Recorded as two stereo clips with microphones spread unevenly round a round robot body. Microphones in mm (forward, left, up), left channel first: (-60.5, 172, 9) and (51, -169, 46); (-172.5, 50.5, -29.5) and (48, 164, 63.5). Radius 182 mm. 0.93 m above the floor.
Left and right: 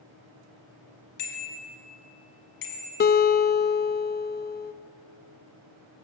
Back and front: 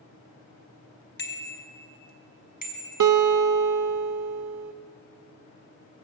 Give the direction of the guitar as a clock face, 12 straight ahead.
10 o'clock.